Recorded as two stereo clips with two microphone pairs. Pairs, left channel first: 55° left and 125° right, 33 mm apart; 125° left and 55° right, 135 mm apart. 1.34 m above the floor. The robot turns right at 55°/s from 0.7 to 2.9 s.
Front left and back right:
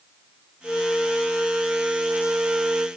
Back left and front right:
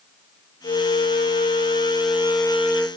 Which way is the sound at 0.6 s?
100° left.